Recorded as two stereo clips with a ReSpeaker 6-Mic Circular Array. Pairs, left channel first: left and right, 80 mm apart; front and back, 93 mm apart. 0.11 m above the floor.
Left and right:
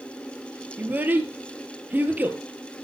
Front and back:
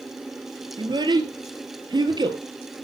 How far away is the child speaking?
About 1.3 m.